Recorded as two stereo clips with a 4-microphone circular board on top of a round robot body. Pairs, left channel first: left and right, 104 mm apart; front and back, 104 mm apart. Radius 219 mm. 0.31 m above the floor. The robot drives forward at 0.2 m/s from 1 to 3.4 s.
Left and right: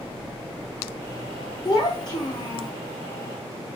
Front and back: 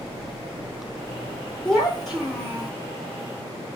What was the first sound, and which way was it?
A child speaking, 85° left.